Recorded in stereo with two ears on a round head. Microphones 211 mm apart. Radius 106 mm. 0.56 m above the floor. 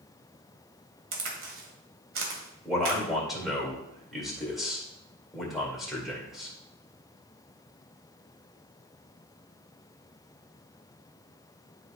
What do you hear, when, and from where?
1.1 s a crack: 55° right (ahead or behind), 1.9 m
2.6 s a man speaking: centre (ahead or behind), 2 m